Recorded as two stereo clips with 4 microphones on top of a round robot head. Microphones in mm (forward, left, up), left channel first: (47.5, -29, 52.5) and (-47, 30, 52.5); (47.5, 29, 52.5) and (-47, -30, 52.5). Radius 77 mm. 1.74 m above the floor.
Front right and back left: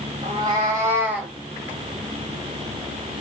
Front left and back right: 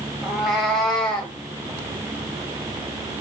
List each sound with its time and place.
0.2 s a cat meowing: 125° left, 1.8 m; by 1.3 s 75° left, 1.5 m